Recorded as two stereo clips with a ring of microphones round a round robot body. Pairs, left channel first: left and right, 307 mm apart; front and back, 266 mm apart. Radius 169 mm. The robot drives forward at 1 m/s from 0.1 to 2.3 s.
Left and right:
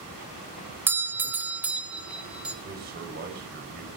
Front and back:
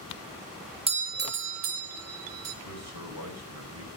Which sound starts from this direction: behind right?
A man speaking, at 2.6 s.